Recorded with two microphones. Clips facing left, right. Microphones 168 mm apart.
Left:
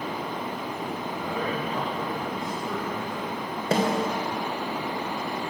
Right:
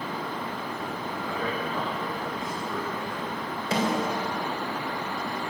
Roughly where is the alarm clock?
No alarm clock in this recording.